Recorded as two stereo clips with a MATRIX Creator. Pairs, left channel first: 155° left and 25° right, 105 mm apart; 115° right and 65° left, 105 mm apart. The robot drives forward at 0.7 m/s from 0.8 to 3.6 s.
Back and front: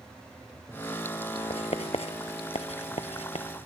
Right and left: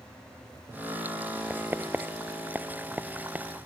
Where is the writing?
140° left; by 3.5 s 145° left.